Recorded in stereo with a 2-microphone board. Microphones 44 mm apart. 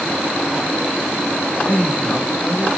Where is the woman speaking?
35° left (ahead or behind), 1.3 m; by 2.7 s 10° left (ahead or behind), 1.3 m.